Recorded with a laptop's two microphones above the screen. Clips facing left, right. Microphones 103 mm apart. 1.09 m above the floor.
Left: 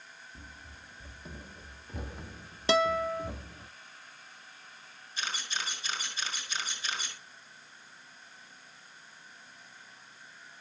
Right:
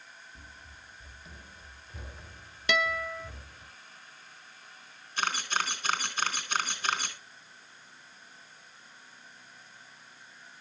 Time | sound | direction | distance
0.3 | running footsteps | 30° left (ahead or behind) | 1.9 m
2.7 | a guitar | 30° left (ahead or behind) | 0.6 m
5.2 | a camera shutter | 50° right (ahead or behind) | 4.5 m